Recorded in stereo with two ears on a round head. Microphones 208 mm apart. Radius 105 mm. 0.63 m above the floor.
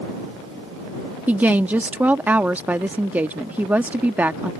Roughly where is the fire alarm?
No fire alarm in this recording.